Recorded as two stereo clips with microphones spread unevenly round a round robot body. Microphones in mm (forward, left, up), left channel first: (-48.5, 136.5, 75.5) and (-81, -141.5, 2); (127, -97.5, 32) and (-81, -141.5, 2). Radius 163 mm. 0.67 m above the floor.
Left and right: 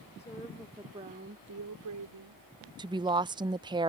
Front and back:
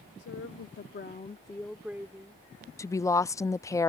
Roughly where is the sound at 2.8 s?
Right.